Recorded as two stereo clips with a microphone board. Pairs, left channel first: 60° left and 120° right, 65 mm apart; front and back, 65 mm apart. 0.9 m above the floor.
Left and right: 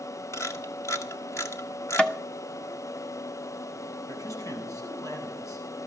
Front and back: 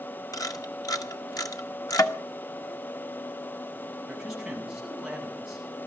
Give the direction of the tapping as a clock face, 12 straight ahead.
12 o'clock.